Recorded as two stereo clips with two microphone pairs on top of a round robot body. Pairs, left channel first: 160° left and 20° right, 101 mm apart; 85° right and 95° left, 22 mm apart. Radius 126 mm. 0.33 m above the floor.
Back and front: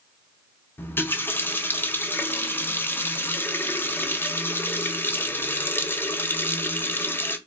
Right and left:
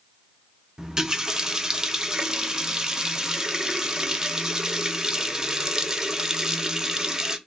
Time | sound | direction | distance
0.8 | a running tap | 90° left | 0.8 m